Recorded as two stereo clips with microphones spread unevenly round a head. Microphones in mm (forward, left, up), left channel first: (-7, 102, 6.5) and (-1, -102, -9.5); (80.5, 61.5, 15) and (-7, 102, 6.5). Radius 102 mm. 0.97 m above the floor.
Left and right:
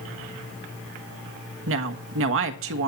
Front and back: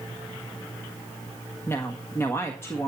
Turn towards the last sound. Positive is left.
turn(degrees=-100)